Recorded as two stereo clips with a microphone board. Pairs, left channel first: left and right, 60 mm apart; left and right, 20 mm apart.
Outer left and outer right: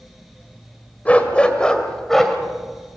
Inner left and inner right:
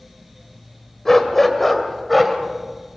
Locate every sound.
1.1 s a dog barking: 25° left (ahead or behind), 2.0 m; by 2.4 s 5° left (ahead or behind), 2.5 m